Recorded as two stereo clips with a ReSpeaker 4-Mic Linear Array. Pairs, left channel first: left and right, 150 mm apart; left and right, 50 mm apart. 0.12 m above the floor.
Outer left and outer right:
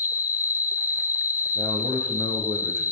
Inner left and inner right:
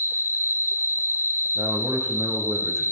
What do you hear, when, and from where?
0.0 s an insect: 55° right (ahead or behind), 2.5 m
1.6 s a man speaking: 70° right (ahead or behind), 7 m